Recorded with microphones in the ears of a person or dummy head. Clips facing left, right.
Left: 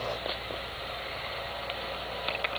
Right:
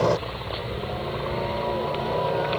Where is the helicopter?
65° right (ahead or behind); by 2.6 s 70° right (ahead or behind).